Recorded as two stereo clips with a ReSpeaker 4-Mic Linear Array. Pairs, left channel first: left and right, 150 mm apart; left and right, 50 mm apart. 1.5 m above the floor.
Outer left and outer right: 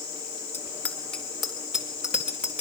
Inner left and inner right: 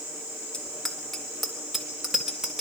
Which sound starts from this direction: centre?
A bicycle bell, at 0.5 s.